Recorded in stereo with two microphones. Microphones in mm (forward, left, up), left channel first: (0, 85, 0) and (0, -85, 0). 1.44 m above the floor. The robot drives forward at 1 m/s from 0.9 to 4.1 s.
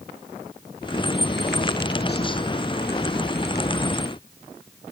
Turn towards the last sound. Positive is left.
No sound to turn to.